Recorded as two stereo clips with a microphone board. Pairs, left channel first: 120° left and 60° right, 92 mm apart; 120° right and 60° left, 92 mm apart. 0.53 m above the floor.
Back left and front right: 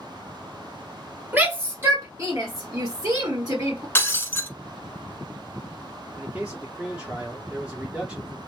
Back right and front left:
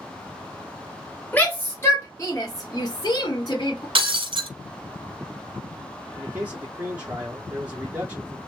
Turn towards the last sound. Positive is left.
turn(degrees=5)